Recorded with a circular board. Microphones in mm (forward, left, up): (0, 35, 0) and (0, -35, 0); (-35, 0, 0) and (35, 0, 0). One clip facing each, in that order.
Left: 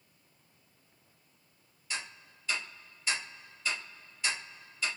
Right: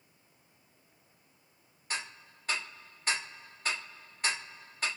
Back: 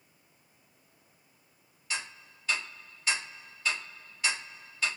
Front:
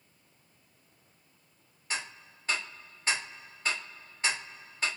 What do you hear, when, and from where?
1.9 s ticking: 50° right, 1.2 m